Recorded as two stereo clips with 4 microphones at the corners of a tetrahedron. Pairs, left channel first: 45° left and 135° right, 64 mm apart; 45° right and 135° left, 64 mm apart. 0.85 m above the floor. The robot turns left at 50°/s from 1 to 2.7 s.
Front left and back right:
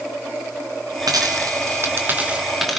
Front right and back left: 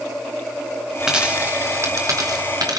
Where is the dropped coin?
145° right, 3 m; by 2.8 s 135° left, 3 m.